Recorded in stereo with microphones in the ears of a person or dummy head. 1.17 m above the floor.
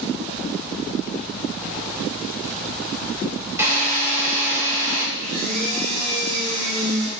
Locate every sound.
3.6 s a drill: 15° right (ahead or behind), 2.5 m
5.2 s a blender: 30° right (ahead or behind), 3.5 m